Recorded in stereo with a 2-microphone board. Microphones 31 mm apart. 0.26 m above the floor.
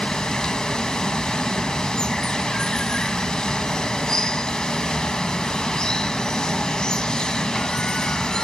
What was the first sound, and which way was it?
Running water, 20° left (ahead or behind).